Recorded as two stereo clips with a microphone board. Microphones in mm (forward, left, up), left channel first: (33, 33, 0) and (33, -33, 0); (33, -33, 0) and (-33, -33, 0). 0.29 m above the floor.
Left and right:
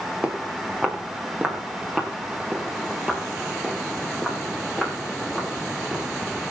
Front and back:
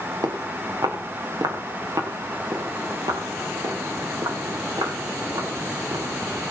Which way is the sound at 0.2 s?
160° right.